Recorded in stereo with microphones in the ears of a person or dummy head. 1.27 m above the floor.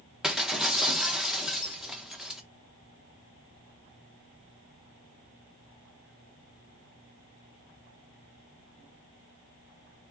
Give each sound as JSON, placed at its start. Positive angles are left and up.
{"t": 0.2, "sound": "breaking glass", "side_deg": -5, "distance_m": 0.5}